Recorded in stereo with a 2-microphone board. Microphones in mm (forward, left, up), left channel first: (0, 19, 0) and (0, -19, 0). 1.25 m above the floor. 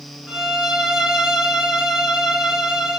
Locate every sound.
0.3 s a violin: 20° right (ahead or behind), 0.9 m